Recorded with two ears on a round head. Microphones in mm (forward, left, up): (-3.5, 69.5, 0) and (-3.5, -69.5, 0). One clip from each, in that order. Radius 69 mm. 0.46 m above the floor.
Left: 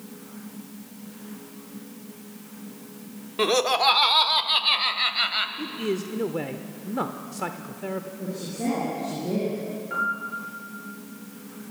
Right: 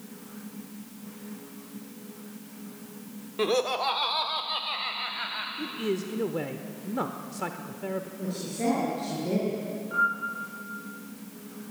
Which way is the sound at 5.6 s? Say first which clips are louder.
Left 2 dB; 5° left (ahead or behind).